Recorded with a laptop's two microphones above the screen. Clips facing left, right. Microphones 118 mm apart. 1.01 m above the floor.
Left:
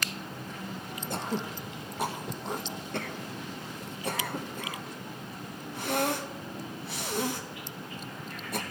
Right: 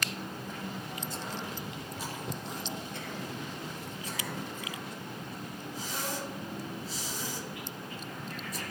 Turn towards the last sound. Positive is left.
turn(degrees=65)  # may be behind; listen again after turning